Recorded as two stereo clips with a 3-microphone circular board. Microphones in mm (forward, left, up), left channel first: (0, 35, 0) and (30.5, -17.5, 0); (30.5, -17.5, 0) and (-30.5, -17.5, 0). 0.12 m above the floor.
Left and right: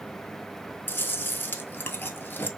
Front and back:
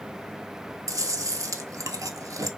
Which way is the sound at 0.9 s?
175° left.